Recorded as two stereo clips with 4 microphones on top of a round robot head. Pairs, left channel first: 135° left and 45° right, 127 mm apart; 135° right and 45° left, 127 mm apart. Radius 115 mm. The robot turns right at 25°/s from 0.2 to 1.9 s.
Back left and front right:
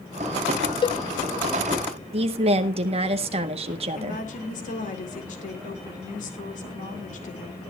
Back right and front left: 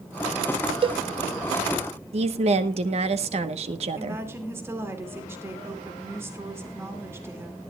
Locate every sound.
0.8 s a cowbell: 85° left, 0.6 m; by 1.0 s 90° left, 0.6 m
2.1 s a woman speaking: straight ahead, 1.1 m
4.0 s a woman speaking: 115° left, 2.5 m